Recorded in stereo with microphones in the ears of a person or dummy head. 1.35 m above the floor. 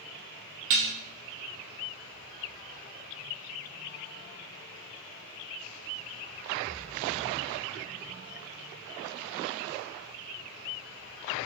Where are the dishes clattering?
35° right (ahead or behind), 0.7 m.